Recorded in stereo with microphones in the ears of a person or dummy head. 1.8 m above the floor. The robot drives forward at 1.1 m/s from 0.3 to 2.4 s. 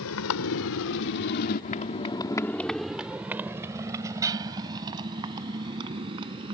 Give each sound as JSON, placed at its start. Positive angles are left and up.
{"t": 0.0, "sound": "a motorcycle", "side_deg": 70}